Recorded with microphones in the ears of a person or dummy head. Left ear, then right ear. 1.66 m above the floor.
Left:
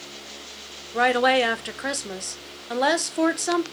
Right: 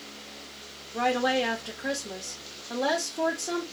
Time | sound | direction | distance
0.9 | a woman speaking | 50° left (ahead or behind) | 0.5 m